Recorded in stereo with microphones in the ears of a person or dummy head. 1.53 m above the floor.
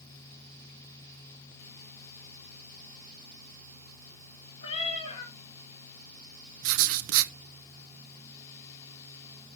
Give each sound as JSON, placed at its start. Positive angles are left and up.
{"t": 4.6, "sound": "a cat meowing", "side_deg": 25, "distance_m": 3.0}
{"t": 6.6, "sound": "writing", "side_deg": -70, "distance_m": 0.8}